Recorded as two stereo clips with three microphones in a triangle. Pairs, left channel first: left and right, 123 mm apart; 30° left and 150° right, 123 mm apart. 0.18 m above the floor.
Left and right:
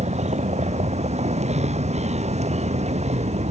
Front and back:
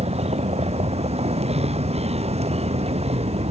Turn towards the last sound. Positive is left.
turn(degrees=-115)